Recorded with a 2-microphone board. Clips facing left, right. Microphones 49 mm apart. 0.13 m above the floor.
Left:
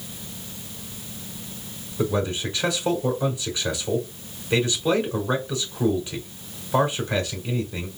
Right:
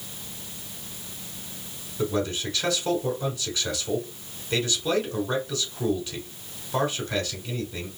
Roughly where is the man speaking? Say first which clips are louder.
Left 2 dB; centre.